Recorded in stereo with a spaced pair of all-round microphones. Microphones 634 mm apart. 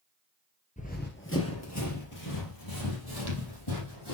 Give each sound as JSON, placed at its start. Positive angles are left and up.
{"t": 0.8, "sound": "running footsteps", "side_deg": 10, "distance_m": 1.6}